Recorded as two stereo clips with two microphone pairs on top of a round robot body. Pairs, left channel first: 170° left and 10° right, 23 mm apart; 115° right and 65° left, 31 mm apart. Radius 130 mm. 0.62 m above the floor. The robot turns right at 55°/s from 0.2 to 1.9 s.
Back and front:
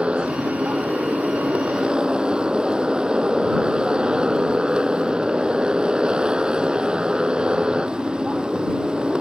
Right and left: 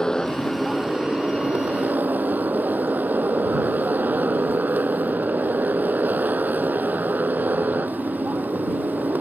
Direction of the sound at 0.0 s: 50° right.